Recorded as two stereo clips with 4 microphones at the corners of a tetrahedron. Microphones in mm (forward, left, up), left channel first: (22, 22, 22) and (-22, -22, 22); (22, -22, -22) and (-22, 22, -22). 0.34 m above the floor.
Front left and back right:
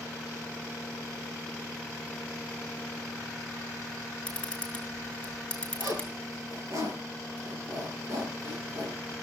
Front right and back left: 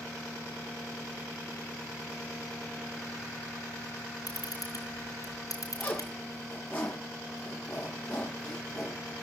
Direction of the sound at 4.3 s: 35° right.